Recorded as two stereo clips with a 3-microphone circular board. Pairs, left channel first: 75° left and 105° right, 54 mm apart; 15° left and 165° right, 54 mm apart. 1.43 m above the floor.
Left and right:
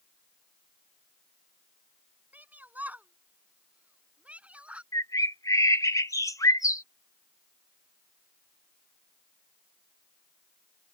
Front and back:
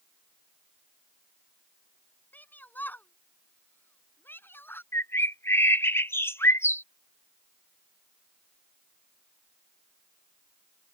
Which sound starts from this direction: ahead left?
A bird, at 4.9 s.